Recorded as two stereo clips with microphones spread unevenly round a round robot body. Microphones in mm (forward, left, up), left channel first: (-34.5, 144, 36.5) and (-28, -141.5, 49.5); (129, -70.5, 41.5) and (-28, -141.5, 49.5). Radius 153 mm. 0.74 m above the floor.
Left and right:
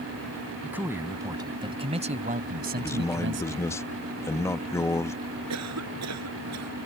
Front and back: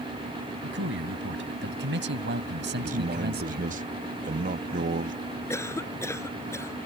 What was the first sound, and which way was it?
A man speaking, 175° right.